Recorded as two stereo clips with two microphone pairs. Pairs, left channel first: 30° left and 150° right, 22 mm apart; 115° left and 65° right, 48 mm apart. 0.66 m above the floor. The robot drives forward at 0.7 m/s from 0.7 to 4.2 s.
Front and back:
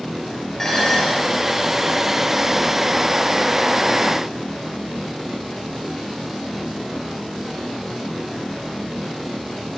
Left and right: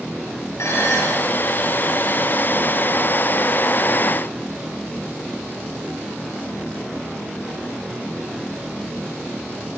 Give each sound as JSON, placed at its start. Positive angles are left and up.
{"t": 0.6, "sound": "dishes clattering", "azimuth_deg": 110, "distance_m": 9.0}